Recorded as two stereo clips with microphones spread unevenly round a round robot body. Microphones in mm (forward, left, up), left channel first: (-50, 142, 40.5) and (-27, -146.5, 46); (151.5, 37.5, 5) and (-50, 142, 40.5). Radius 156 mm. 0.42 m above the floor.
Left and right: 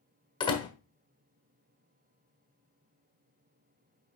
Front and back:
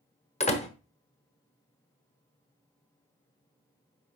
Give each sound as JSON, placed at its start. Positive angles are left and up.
{"t": 0.4, "sound": "a door slam", "azimuth_deg": 25, "distance_m": 1.4}